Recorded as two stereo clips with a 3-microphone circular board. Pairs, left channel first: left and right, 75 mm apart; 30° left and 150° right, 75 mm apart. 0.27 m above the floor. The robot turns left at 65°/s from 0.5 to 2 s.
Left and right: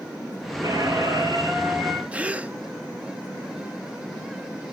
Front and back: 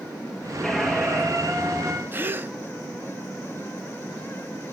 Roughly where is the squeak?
Ahead right.